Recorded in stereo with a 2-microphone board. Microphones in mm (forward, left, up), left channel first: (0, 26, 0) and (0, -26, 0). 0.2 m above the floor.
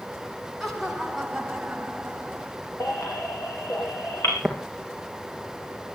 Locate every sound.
0.6 s laughter: 5° right (ahead or behind), 1.9 m; by 2.5 s 25° right (ahead or behind), 1.2 m
2.8 s a baby crying: 60° left (ahead or behind), 5 m
4.4 s tapping: centre (ahead or behind), 3 m